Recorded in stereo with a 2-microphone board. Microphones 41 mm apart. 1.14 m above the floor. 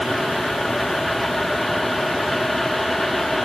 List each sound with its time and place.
Only background noise.